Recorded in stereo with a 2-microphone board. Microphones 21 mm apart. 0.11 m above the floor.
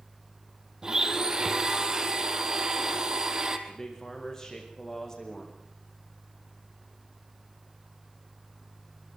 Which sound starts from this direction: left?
A man speaking, at 3.7 s.